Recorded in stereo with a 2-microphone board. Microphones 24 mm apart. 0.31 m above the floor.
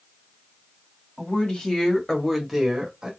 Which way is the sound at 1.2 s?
55° left (ahead or behind).